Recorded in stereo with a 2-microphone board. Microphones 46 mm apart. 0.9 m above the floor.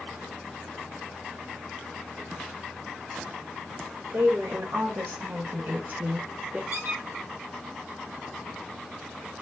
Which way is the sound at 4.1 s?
75° right (ahead or behind).